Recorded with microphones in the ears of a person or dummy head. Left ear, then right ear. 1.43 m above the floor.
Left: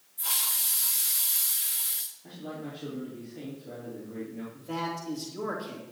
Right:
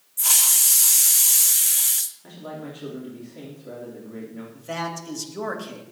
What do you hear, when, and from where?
0.2 s a hiss: 70° right (ahead or behind), 1.0 m
2.2 s a man speaking: 50° right (ahead or behind), 3.5 m
4.5 s a man speaking: 65° right (ahead or behind), 2.5 m